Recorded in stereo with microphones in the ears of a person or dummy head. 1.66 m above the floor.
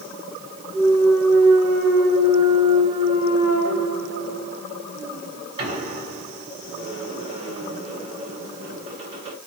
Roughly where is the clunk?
Right.